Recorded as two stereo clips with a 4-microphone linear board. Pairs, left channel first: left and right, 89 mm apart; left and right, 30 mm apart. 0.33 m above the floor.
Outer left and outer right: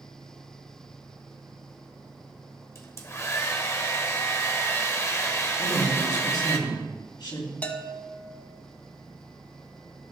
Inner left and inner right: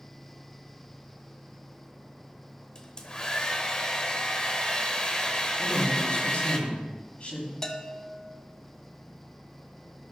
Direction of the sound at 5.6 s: 55° left (ahead or behind).